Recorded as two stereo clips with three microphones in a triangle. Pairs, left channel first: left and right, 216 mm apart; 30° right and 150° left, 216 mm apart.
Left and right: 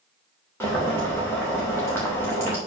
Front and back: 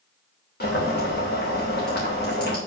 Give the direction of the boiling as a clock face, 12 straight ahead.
12 o'clock.